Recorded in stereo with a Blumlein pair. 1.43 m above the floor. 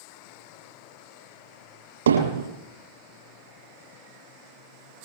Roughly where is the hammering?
Ahead right.